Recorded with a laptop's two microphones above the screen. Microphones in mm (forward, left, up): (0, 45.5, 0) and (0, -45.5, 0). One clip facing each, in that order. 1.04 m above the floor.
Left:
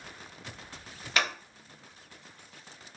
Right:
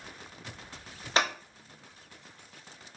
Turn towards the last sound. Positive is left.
turn(degrees=-30)  # may be behind; listen again after turning